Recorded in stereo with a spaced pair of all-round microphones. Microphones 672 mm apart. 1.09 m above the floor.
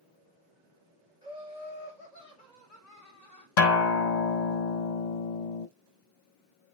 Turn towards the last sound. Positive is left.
turn(degrees=80)